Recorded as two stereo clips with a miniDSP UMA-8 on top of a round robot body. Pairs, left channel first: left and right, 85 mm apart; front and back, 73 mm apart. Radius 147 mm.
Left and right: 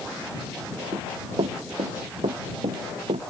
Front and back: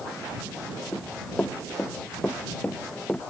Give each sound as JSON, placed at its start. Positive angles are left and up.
{"t": 0.9, "sound": "running footsteps", "azimuth_deg": -70}